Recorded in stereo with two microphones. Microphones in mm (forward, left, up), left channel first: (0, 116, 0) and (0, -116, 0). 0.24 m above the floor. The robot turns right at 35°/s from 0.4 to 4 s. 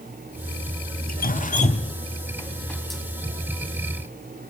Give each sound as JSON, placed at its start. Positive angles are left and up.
{"t": 1.1, "sound": "dripping", "side_deg": 45, "distance_m": 0.7}